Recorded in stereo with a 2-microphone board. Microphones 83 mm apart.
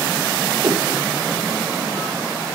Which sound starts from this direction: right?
A whoosh, at 0.6 s.